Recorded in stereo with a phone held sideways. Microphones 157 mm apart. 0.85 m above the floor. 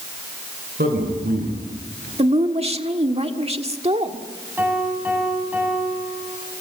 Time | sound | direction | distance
0.8 | a man speaking | 75° right (ahead or behind) | 8 m
2.2 | a woman speaking | 40° right (ahead or behind) | 1.6 m
4.6 | a piano | 10° right (ahead or behind) | 8 m